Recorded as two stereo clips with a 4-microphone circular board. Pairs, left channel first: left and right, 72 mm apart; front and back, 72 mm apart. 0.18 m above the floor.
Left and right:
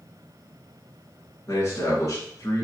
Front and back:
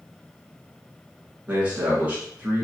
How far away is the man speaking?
About 1.7 m.